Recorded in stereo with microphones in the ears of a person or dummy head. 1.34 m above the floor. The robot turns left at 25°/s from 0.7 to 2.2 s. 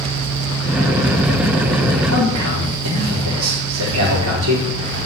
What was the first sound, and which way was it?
A man speaking, 80° right.